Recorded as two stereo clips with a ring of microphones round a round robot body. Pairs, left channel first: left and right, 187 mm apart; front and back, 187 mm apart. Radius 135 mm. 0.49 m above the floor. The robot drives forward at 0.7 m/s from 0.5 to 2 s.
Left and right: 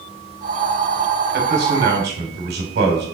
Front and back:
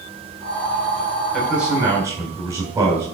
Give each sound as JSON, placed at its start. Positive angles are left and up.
{"t": 1.3, "sound": "a man speaking", "azimuth_deg": -90, "distance_m": 2.0}